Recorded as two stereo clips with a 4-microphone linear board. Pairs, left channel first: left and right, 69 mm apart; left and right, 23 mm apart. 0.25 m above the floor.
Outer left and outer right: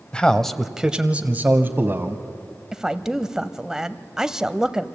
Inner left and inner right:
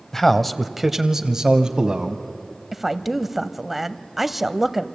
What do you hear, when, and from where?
0.1 s a man speaking: 15° left (ahead or behind), 1.0 m; by 2.2 s 35° right (ahead or behind), 1.5 m
2.7 s a woman speaking: 10° right (ahead or behind), 1.0 m